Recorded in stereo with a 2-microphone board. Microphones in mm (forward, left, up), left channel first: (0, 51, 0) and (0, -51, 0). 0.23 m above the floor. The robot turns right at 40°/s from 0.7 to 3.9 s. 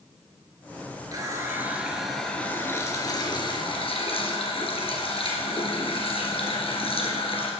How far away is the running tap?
About 2.5 m.